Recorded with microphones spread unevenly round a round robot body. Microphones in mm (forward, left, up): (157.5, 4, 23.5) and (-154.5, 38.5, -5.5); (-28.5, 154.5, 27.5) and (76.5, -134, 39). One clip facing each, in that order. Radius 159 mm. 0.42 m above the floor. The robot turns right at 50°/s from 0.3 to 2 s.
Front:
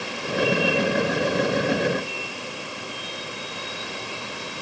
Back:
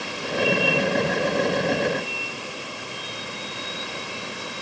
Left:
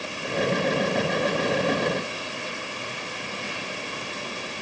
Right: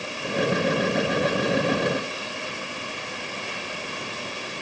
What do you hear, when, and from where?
Only background noise.